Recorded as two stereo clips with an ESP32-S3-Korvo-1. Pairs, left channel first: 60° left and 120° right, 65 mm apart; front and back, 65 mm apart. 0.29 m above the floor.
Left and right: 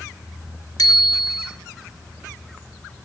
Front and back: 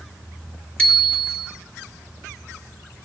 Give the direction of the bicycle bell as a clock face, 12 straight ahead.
10 o'clock.